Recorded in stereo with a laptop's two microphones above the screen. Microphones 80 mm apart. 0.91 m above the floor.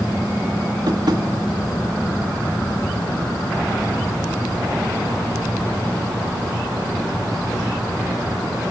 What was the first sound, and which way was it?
Tapping, 60° right (ahead or behind).